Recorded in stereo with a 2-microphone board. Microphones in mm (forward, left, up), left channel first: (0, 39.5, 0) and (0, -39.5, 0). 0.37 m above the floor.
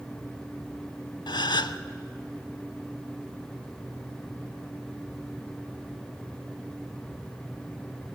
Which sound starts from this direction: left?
A gasp, at 1.3 s.